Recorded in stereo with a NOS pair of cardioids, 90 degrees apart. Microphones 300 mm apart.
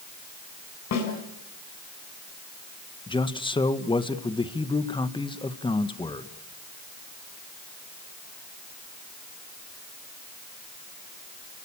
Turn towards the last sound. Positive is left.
turn(degrees=15)